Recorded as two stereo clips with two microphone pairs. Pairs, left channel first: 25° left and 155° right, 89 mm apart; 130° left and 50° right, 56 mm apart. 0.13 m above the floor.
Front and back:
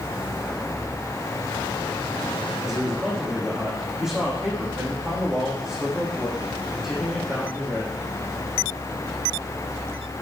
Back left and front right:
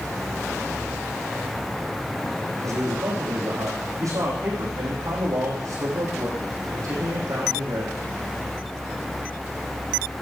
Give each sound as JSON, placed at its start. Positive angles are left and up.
{"t": 2.6, "sound": "a man speaking", "azimuth_deg": -70, "distance_m": 5.5}